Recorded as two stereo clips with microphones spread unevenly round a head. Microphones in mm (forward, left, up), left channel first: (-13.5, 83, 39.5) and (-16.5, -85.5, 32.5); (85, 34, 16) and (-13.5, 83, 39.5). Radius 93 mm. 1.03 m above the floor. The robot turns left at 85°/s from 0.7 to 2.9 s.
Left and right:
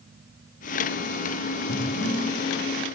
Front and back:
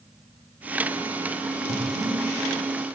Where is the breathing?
125° left, 2 m; by 2.2 s 80° left, 2 m.